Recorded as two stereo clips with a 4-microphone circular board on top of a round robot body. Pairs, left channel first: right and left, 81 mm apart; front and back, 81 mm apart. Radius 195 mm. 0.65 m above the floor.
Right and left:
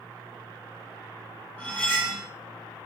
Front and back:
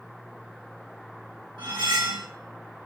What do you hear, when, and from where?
1.6 s cutlery clinking: 165° right, 1.4 m